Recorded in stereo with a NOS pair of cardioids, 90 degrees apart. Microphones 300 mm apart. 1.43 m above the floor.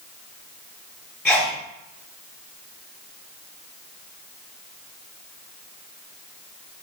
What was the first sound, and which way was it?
A sneeze, straight ahead.